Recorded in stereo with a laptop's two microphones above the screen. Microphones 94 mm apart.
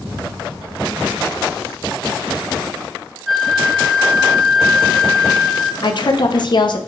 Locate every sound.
3.3 s a flute: centre (ahead or behind), 0.5 m
5.8 s a woman speaking: 55° left (ahead or behind), 0.5 m